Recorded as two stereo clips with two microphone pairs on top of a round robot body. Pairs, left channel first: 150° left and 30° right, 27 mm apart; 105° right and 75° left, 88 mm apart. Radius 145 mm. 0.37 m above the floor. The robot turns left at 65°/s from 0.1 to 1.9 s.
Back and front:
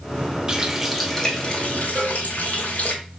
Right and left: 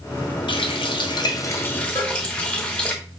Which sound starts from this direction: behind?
A cowbell, at 1.9 s.